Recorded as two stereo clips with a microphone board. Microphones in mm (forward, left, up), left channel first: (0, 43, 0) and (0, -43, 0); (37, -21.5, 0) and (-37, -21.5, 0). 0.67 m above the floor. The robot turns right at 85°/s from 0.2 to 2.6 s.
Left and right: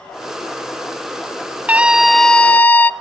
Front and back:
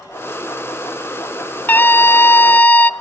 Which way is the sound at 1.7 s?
40° right.